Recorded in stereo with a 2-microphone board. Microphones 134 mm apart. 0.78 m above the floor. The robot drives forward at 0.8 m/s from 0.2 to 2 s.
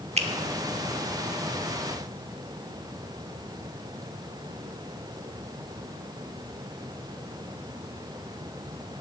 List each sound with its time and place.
0.2 s a finger snap: 50° right (ahead or behind), 1.1 m